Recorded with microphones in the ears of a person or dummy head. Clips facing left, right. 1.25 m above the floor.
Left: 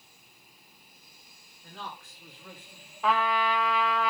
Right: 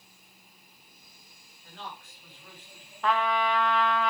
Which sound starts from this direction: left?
A man speaking, at 1.6 s.